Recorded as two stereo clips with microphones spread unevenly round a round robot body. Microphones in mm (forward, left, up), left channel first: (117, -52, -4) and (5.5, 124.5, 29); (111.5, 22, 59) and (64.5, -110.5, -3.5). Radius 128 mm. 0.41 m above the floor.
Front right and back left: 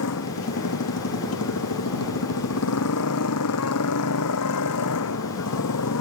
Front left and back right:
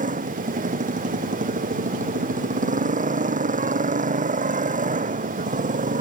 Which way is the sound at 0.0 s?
85° right.